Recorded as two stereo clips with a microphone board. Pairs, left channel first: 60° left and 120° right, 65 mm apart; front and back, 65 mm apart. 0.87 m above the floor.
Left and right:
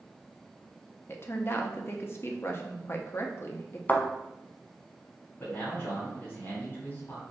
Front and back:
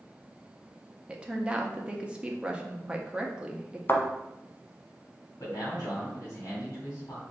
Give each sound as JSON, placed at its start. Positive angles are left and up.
{"t": 1.1, "sound": "a woman speaking", "azimuth_deg": 110, "distance_m": 0.7}
{"t": 3.9, "sound": "a thud", "azimuth_deg": 15, "distance_m": 0.9}
{"t": 5.4, "sound": "a man speaking", "azimuth_deg": 20, "distance_m": 2.0}